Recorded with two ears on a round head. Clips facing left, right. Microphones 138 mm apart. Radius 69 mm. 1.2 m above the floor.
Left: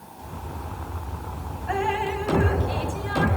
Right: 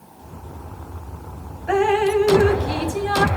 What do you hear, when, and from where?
1.7 s dripping: 65° right (ahead or behind), 0.8 m